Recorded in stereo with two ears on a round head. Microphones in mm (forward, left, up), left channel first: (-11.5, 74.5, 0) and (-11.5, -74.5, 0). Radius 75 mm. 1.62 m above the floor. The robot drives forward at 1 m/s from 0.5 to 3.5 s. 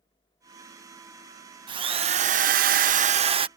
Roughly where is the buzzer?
I don't hear a buzzer.